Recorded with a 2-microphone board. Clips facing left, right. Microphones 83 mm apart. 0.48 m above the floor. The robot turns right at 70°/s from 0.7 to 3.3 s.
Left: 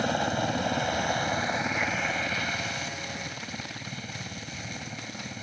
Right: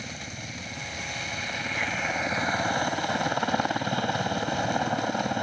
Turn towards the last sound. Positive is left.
turn(degrees=-90)